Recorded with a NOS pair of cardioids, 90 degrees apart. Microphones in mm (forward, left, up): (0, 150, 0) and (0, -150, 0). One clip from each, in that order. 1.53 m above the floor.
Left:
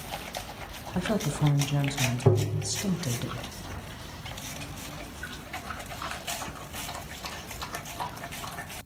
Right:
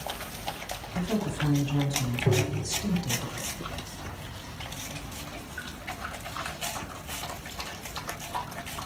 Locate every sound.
0.9 s a woman speaking: 30° left, 0.7 m
2.3 s tapping: 55° left, 0.6 m